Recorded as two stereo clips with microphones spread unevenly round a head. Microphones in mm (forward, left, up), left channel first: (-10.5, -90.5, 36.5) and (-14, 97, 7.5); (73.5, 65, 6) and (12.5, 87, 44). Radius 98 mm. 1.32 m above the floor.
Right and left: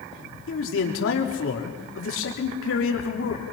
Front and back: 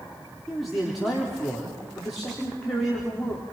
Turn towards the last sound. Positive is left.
turn(degrees=-105)